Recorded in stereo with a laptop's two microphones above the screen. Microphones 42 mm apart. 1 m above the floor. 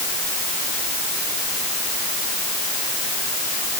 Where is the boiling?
I don't hear boiling.